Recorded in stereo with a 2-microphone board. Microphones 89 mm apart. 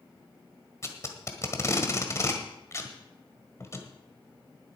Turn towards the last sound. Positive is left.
turn(degrees=30)  # may be behind; listen again after turning